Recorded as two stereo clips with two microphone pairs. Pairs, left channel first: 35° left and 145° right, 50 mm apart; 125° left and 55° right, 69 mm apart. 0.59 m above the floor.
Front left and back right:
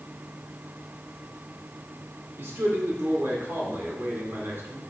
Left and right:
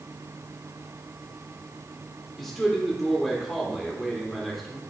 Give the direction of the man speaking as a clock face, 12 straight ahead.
5 o'clock.